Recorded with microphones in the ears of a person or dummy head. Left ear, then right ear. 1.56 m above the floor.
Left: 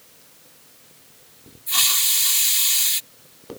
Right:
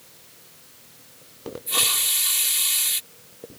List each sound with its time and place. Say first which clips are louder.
1.7 s a hiss: left 3 dB; 15° left (ahead or behind)